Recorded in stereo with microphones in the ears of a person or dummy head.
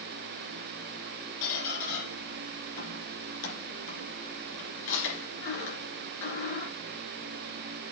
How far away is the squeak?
About 4.5 m.